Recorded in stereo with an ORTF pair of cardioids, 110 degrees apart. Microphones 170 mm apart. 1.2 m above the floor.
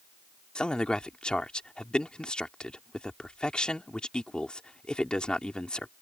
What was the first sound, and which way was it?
A man speaking, 5° left.